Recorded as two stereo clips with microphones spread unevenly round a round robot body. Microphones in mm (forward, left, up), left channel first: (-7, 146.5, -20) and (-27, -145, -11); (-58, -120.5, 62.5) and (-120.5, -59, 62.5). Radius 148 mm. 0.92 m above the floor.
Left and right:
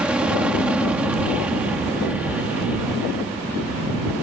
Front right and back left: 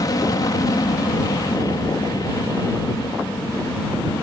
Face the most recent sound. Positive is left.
turn(degrees=-10)